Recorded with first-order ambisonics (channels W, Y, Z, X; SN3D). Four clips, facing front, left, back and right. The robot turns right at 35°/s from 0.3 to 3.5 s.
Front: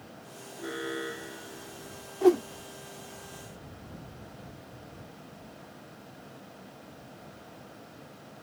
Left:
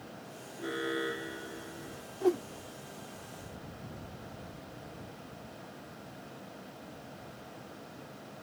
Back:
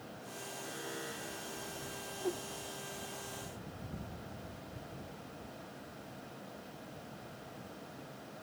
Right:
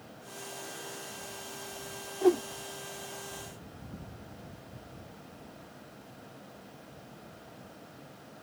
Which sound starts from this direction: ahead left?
An alarm, at 0.6 s.